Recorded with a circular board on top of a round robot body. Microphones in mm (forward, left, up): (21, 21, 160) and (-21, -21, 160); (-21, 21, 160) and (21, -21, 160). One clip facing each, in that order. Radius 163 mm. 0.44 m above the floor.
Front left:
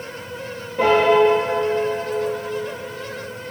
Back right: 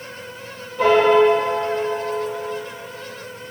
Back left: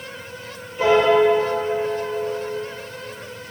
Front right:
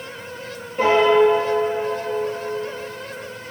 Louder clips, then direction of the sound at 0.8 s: Back right 1 dB, front right 1 dB; 10° left.